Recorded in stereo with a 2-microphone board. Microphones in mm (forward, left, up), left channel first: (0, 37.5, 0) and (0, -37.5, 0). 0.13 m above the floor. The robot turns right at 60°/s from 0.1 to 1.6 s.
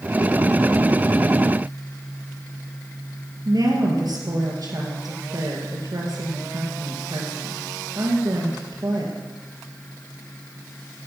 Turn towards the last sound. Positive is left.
turn(degrees=-60)  # may be behind; listen again after turning